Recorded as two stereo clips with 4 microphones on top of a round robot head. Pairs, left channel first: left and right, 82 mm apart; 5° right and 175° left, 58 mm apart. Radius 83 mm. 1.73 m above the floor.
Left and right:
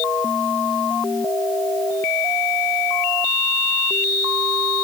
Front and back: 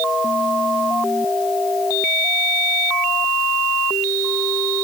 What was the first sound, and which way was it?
Only background noise.